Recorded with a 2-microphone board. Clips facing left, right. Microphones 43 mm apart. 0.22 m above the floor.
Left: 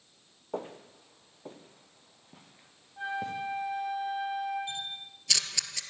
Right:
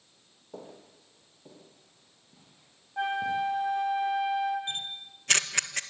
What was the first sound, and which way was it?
Footsteps, 50° left (ahead or behind).